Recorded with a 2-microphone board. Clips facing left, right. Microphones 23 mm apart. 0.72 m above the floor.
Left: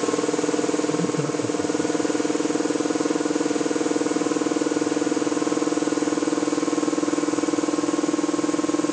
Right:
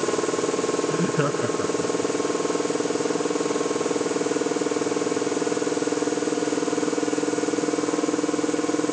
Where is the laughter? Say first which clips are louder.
Even; 40° right (ahead or behind); by 2.1 s 45° right (ahead or behind).